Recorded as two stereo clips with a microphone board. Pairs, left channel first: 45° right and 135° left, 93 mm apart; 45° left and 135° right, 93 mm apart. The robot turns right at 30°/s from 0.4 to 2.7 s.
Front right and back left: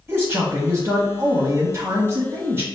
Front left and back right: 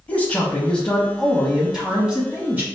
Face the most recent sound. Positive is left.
turn(degrees=175)